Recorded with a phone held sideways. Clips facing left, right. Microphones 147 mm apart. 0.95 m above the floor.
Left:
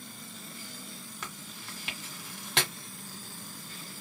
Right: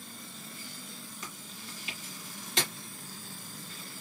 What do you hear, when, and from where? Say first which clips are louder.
1.2 s chewing: left 1 dB; 65° left (ahead or behind), 1.5 m